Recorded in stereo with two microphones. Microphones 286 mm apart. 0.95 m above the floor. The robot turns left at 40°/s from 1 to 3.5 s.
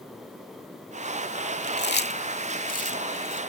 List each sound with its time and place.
1.6 s chewing: 35° left (ahead or behind); by 3.4 s 15° left (ahead or behind)